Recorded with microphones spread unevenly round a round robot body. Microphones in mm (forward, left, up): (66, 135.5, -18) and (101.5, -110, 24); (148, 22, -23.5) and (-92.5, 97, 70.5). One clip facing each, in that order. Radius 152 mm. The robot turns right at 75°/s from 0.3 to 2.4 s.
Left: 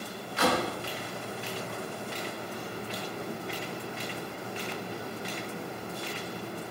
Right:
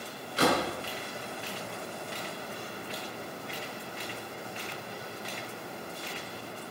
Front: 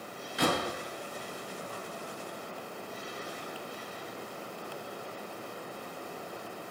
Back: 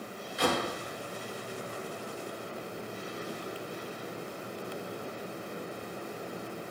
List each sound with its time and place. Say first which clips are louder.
0.4 s a door slam: right 1 dB, even; 25° right, 5.5 m; by 0.7 s straight ahead, 5.5 m